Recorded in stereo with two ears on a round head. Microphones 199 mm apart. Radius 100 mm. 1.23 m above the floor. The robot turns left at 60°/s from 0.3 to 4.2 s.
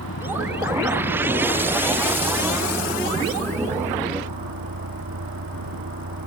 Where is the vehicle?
120° left; by 6.3 s 115° right.